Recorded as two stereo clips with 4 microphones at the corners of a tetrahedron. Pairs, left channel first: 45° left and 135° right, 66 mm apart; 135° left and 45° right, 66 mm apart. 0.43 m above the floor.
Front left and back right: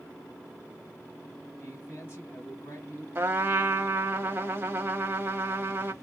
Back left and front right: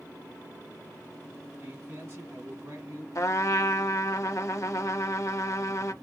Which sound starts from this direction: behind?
A trumpet, at 3.1 s.